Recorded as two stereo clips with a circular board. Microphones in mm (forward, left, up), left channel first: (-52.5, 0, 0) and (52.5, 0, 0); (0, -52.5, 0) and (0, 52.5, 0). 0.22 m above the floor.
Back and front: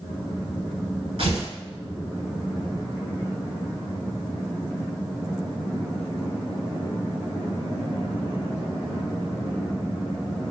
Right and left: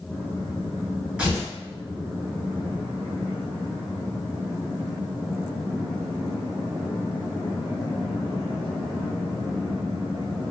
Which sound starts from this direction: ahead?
Tearing paper, at 1.2 s.